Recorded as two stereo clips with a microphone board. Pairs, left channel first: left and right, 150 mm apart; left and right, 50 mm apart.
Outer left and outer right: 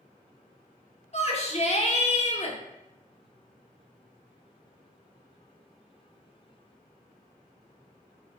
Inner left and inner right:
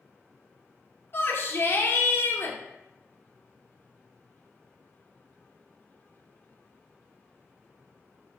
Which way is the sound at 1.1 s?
45° left (ahead or behind).